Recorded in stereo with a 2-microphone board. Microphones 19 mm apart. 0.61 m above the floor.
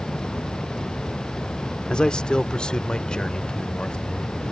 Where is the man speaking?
45° left (ahead or behind).